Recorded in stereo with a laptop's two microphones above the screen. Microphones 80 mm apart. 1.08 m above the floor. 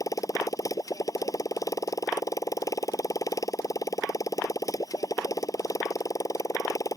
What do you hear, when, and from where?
0.0 s a motorcycle: 45° left (ahead or behind)